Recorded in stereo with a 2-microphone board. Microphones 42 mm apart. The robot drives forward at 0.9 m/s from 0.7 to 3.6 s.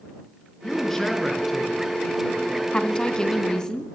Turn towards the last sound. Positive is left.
turn(degrees=15)  # may be behind; listen again after turning